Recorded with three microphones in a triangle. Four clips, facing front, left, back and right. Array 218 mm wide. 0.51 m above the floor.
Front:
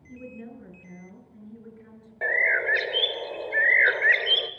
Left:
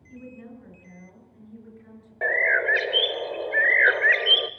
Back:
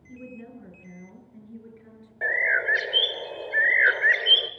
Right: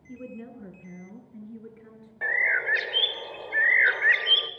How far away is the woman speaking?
About 7 m.